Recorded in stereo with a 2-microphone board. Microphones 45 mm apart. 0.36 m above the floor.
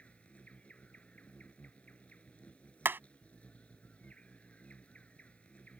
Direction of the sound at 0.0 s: 30° left (ahead or behind).